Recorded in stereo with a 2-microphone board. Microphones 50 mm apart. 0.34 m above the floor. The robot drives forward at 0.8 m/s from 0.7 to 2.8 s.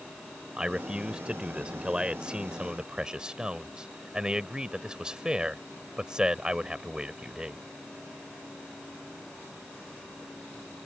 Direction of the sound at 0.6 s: 20° right (ahead or behind).